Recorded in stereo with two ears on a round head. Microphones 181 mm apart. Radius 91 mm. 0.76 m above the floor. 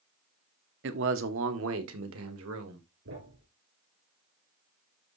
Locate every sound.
0.8 s a man speaking: 65° right (ahead or behind), 1.2 m; by 2.9 s 80° right, 2.5 m
3.0 s a thud: 75° right (ahead or behind), 7 m